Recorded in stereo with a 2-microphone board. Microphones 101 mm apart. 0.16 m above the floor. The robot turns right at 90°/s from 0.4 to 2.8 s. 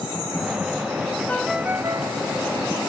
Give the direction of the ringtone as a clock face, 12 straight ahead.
7 o'clock.